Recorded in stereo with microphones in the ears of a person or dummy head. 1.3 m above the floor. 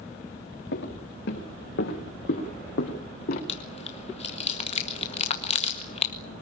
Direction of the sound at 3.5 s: 35° left (ahead or behind).